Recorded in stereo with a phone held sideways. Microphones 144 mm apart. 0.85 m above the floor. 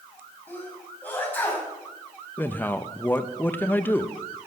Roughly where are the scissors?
No scissors in this recording.